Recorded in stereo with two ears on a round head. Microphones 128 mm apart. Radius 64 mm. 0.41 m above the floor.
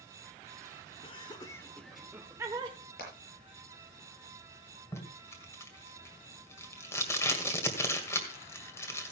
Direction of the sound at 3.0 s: 70° left (ahead or behind).